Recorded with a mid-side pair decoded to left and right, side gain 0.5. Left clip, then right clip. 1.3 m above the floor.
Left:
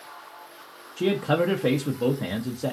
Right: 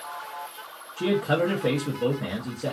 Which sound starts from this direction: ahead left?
A man speaking, at 1.0 s.